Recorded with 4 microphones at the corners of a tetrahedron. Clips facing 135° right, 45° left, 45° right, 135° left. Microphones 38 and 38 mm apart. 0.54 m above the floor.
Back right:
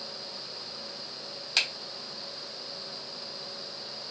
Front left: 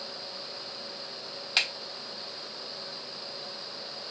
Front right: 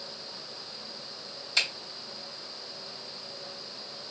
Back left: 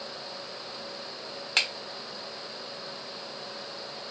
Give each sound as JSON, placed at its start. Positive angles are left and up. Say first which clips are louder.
{"t": 1.6, "sound": "a finger snap", "louder": "front left 1 dB, back left 1 dB", "azimuth_deg": 120, "distance_m": 1.4}